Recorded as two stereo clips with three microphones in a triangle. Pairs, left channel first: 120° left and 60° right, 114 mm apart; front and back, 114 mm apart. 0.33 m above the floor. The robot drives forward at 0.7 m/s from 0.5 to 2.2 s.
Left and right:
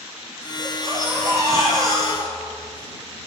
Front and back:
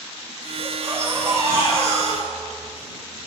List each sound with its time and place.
0.6 s a baby crying: 115° right, 9.5 m; by 2.8 s 120° right, 10 m